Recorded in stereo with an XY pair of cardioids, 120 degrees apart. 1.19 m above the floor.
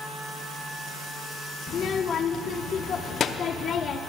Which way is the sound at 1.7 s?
45° left.